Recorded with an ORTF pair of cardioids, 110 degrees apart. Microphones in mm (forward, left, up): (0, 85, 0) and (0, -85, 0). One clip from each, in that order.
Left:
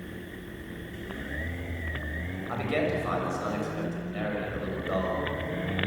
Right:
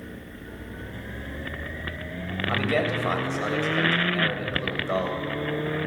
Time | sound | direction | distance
2.5 | a man speaking | 35° right | 6.5 m